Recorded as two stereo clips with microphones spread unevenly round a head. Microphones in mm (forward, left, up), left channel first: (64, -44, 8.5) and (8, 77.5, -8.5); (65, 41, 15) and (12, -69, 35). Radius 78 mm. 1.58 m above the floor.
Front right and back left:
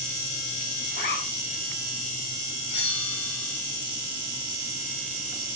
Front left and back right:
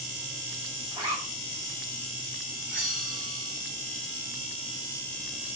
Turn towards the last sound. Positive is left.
turn(degrees=-30)